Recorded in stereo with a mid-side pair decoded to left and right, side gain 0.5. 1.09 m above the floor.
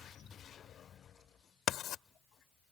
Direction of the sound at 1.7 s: 65° left.